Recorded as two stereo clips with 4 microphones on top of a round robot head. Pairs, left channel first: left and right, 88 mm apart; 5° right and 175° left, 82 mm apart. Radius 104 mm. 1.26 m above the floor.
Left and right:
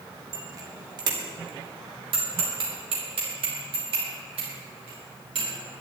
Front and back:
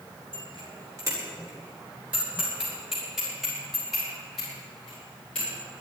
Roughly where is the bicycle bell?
Behind right.